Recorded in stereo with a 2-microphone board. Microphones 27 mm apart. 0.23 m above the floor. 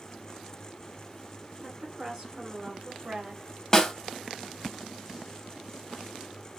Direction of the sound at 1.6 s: 15° right (ahead or behind).